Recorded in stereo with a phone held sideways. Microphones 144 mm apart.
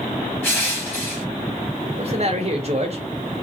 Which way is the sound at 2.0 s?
45° right (ahead or behind).